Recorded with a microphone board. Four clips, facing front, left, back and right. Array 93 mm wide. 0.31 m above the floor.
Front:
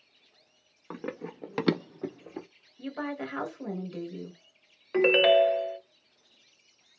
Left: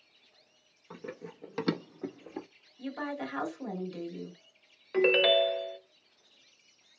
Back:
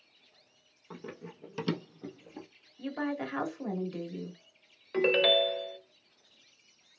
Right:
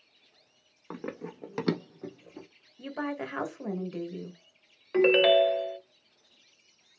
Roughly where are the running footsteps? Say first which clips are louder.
Right 5 dB, front 7 dB; ahead right.